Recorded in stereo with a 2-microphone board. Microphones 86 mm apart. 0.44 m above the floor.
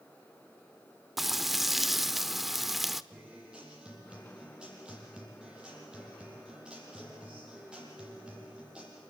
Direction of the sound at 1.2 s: Centre (ahead or behind).